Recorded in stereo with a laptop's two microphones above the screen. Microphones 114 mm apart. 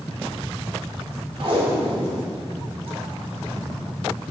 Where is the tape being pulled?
50° right (ahead or behind), 1.5 m.